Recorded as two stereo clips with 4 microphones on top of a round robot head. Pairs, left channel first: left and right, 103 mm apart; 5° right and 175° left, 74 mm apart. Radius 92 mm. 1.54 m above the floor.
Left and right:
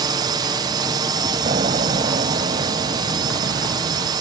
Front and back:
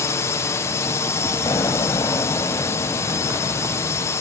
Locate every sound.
0.0 s a drone: 50° right
1.4 s an explosion: 60° right